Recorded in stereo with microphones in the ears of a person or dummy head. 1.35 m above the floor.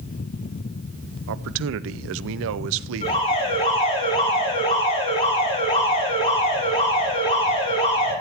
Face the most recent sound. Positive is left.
turn(degrees=30)  # may be behind; listen again after turning